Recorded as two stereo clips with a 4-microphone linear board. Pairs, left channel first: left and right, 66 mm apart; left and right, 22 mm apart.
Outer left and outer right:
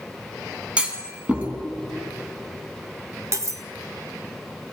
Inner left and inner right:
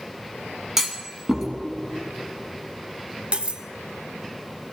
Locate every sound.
0.8 s a clunk: 15° right (ahead or behind), 1.2 m
3.3 s cutlery clinking: 50° right (ahead or behind), 0.6 m